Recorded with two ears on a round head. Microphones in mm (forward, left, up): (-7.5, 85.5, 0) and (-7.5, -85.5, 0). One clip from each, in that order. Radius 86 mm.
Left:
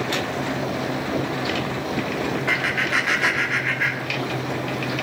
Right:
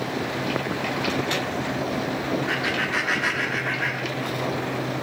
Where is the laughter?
55° left (ahead or behind), 2.5 m.